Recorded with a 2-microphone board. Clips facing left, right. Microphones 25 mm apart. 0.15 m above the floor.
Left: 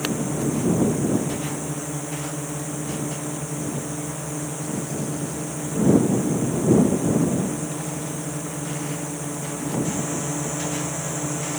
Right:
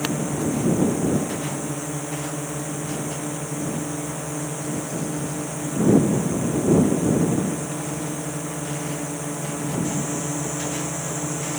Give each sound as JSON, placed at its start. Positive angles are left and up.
{"t": 0.0, "sound": "a drone", "side_deg": -10}